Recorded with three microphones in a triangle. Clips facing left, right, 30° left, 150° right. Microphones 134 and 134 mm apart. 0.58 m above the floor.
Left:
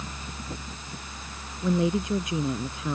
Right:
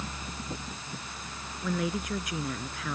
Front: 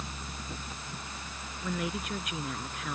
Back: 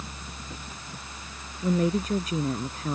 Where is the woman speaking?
155° left.